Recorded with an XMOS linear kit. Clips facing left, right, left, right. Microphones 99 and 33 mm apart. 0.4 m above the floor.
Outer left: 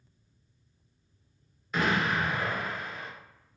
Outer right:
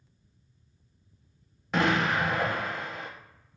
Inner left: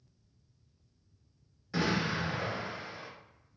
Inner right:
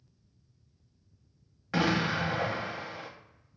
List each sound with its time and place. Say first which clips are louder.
1.7 s an explosion: outer right 2 dB, inner right 4 dB; 80° right, 0.6 m